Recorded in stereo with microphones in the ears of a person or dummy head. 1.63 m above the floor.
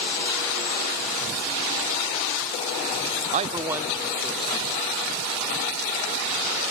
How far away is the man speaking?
About 0.5 m.